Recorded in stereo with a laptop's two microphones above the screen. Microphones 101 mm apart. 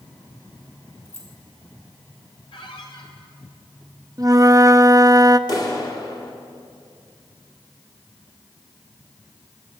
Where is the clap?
40° left (ahead or behind), 2.5 m.